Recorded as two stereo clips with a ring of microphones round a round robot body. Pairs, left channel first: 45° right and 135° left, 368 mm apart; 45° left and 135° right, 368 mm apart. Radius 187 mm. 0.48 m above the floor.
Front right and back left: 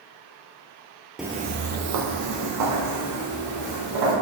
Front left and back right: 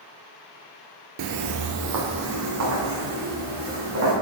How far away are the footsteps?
About 0.5 m.